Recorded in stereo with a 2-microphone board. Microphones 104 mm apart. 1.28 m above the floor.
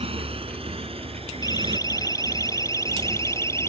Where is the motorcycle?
65° right (ahead or behind); by 3.7 s 70° right (ahead or behind).